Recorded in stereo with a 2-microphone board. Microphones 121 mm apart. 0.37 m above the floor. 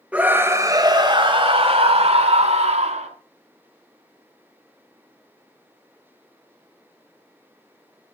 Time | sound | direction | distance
0.1 | a scream | 10° right (ahead or behind) | 1.9 m